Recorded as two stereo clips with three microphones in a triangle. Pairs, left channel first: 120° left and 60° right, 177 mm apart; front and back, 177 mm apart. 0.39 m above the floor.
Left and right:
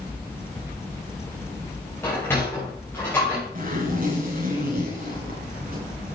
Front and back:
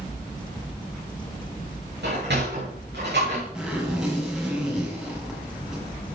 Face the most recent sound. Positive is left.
turn(degrees=-95)